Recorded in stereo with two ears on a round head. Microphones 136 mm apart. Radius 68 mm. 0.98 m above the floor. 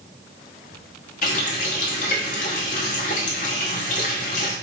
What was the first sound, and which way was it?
A running tap, 55° left (ahead or behind).